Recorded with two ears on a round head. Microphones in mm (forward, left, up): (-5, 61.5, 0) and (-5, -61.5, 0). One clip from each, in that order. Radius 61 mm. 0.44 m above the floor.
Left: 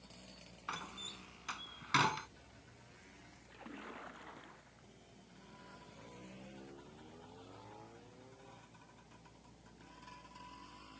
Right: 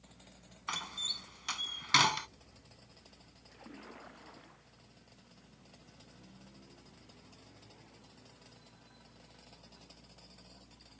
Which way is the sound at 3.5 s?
15° left (ahead or behind).